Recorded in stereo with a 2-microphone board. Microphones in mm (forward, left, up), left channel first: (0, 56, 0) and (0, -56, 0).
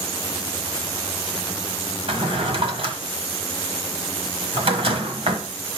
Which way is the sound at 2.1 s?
65° right (ahead or behind).